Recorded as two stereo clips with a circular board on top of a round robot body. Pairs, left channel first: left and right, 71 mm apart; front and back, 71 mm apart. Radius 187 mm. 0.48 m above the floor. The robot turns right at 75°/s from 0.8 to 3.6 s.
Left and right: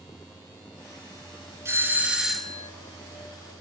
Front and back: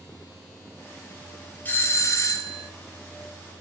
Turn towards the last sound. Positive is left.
turn(degrees=90)